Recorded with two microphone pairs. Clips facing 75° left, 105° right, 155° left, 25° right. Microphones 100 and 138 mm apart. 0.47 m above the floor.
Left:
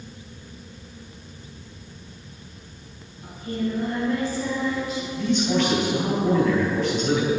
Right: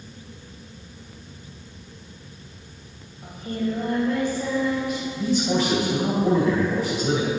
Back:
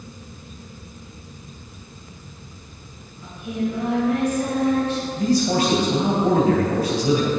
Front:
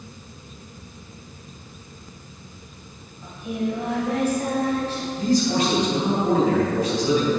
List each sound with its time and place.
3.2 s singing: 80° right, 3 m
5.2 s a man speaking: 160° right, 2.5 m